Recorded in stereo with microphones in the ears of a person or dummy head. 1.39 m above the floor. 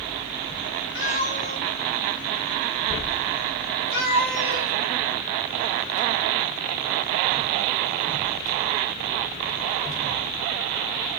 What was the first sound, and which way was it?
A cat meowing, 65° left (ahead or behind).